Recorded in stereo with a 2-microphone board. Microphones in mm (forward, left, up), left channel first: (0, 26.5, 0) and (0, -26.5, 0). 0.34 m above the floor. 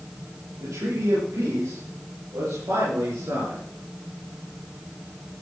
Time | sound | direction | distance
0.6 | a man speaking | 75° right (ahead or behind) | 8 m